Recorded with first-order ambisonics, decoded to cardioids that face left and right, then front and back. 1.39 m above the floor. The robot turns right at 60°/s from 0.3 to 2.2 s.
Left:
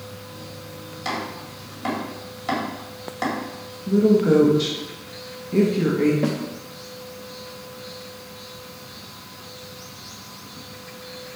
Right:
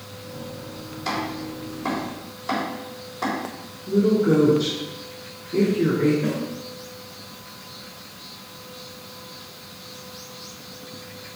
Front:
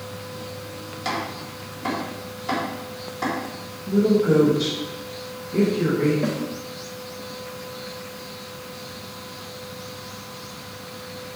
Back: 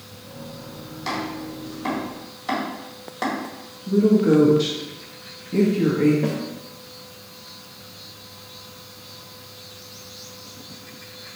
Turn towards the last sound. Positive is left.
turn(degrees=75)